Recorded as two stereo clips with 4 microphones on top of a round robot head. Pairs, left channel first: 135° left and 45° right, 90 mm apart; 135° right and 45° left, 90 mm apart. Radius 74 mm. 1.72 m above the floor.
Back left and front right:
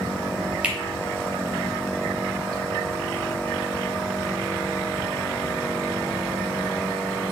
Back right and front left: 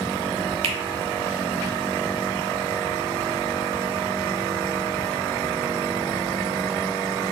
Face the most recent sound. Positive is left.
turn(degrees=35)